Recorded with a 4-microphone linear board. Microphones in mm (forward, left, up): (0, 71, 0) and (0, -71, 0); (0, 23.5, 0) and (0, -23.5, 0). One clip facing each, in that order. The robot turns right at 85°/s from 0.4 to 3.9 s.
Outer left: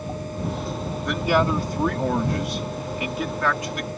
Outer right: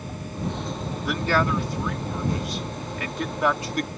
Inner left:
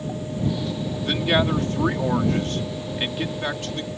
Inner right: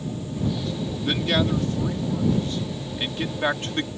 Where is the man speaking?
5° right; by 3.9 s 125° right.